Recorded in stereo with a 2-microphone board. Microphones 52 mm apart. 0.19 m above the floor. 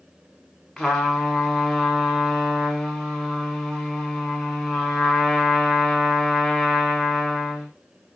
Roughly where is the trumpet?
Centre.